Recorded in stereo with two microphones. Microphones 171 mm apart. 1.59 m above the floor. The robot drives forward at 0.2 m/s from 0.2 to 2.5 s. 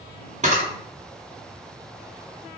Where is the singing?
No singing in this recording.